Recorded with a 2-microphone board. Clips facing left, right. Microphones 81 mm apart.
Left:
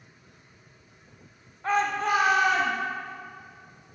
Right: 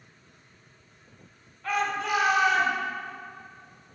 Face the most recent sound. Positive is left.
turn(degrees=45)  # may be behind; listen again after turning